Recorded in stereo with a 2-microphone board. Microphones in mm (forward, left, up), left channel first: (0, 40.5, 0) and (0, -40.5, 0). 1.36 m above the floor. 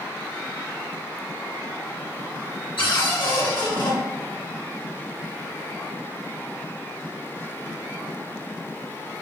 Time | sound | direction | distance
2.8 | a cupboard door | 80° left | 2.5 m